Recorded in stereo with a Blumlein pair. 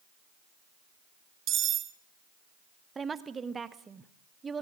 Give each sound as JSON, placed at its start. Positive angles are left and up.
{"t": 1.5, "sound": "cutlery clinking", "azimuth_deg": -30, "distance_m": 1.0}
{"t": 3.0, "sound": "a woman speaking", "azimuth_deg": -15, "distance_m": 1.3}